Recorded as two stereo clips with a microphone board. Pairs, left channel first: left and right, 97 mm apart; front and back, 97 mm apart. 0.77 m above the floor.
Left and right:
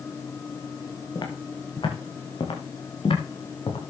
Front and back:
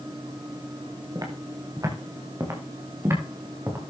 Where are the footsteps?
130° left, 5 m; by 3.8 s 115° left, 6 m.